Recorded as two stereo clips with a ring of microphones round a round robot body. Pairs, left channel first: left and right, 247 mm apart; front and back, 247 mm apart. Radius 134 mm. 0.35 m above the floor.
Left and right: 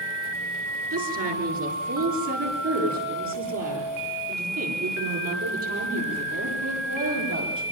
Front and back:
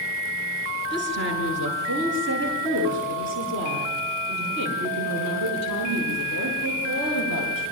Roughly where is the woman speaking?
Behind right.